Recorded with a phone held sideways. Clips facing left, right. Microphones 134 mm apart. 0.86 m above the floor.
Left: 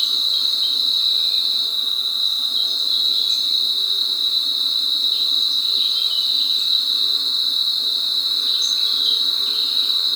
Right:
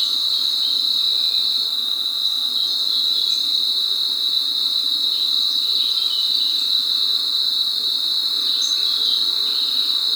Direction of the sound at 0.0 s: 70° right (ahead or behind).